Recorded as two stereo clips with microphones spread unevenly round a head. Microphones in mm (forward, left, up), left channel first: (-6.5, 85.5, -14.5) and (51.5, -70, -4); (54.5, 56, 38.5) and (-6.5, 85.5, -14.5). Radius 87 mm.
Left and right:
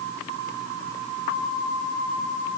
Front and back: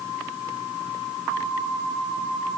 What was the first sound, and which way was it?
Only background noise.